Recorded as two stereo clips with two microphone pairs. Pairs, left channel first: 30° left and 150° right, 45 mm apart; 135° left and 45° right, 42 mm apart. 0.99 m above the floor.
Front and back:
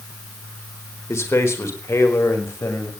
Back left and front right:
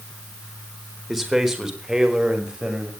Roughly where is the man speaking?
Ahead left.